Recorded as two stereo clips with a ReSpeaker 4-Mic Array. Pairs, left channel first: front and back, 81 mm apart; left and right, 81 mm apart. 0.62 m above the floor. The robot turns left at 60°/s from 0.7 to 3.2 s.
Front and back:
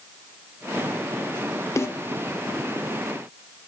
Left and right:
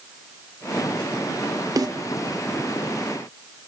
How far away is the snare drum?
About 0.6 m.